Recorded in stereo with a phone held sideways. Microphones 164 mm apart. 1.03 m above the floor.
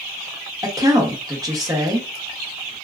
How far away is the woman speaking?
About 1.2 m.